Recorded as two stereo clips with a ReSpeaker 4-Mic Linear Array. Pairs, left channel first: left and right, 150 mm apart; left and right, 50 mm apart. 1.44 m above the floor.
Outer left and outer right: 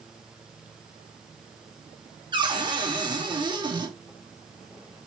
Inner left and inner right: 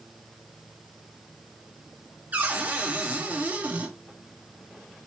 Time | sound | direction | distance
2.3 | a cupboard door | 30° right (ahead or behind) | 1.0 m